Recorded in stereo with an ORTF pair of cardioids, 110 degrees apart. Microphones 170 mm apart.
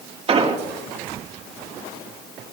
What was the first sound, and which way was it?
An explosion, 35° right.